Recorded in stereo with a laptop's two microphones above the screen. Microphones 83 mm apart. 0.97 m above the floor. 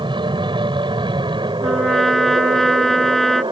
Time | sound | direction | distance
0.0 | an aircraft | 75° right (ahead or behind) | ?
1.6 | a trumpet | centre (ahead or behind) | ?